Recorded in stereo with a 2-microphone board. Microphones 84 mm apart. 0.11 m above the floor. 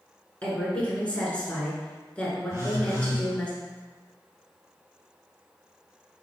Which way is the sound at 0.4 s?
15° left (ahead or behind).